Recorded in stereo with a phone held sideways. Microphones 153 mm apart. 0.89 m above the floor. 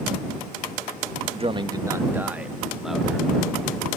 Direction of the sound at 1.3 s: 40° right (ahead or behind).